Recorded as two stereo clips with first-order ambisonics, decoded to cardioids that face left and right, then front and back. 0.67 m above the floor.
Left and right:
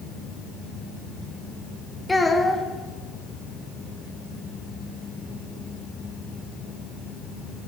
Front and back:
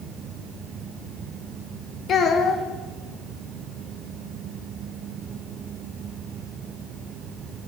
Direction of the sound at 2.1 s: 15° left.